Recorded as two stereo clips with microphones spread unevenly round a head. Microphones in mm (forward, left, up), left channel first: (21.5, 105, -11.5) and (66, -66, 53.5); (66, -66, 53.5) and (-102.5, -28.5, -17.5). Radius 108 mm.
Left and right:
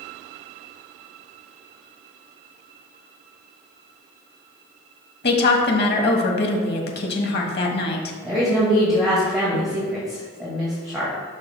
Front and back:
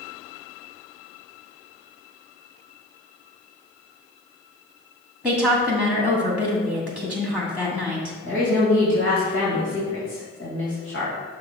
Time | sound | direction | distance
5.2 | a woman speaking | 85° left | 1.4 m
8.2 | a woman speaking | 10° left | 1.9 m